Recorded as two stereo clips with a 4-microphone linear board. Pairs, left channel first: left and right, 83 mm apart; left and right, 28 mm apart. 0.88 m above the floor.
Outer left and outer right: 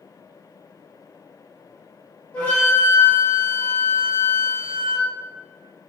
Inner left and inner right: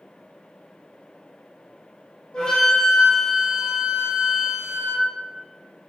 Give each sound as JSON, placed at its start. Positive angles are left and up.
{"t": 2.3, "sound": "a flute", "side_deg": 20, "distance_m": 0.9}